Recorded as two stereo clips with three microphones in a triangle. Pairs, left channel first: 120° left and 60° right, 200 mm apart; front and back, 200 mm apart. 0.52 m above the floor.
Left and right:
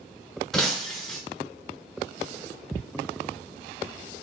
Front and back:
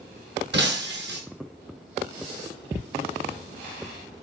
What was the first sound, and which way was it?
Breaking glass, 155° right.